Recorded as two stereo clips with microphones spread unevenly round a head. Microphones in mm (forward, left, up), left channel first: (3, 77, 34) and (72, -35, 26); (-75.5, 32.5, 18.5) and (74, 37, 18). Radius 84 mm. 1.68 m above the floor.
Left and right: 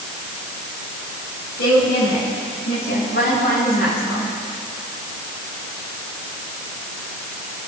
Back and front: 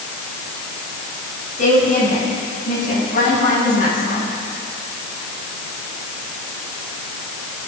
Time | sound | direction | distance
1.6 | a woman speaking | 145° left | 10 m